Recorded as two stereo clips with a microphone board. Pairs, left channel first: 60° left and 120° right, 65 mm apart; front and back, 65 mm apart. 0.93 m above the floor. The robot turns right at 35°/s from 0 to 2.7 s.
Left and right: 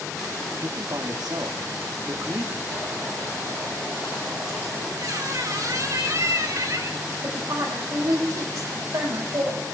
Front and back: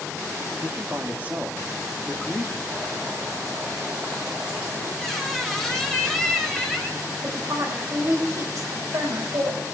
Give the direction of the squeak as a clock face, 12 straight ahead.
3 o'clock.